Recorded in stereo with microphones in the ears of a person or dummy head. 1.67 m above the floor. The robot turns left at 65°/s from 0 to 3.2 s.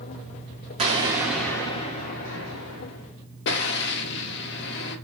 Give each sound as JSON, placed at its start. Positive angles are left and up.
{"t": 0.8, "sound": "an explosion", "azimuth_deg": -145, "distance_m": 0.8}